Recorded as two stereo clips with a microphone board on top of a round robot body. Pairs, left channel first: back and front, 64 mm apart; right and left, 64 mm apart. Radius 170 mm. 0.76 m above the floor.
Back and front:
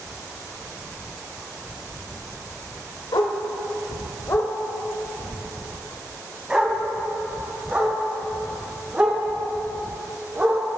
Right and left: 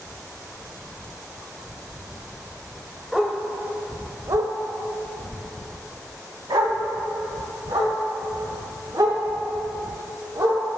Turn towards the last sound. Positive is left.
turn(degrees=60)